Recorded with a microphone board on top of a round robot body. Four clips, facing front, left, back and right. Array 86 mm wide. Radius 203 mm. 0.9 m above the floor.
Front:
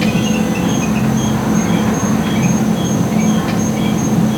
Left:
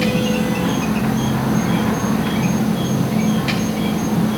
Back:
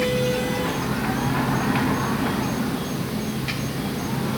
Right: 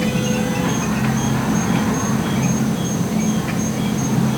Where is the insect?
10° left.